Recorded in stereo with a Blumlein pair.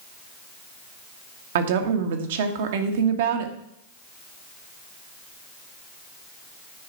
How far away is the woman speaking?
About 1.4 m.